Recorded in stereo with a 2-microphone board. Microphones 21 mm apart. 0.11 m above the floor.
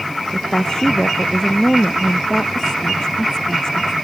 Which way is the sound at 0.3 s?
30° left (ahead or behind).